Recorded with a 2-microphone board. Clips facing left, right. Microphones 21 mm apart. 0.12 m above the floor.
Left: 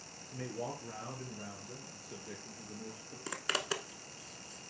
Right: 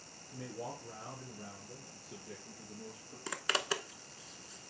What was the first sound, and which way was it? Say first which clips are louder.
A man speaking: left 3 dB; 55° left (ahead or behind).